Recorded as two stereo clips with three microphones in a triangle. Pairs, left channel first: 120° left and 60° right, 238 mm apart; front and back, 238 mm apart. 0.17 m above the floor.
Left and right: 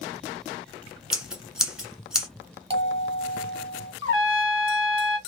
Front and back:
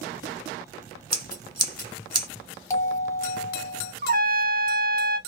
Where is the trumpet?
130° left, 0.5 m.